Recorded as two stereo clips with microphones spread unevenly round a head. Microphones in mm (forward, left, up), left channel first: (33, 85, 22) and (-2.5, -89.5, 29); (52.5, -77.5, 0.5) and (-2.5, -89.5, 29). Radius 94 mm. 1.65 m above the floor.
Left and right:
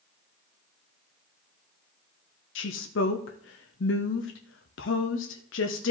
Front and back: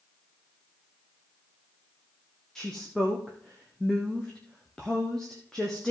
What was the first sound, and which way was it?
A woman speaking, 95° left.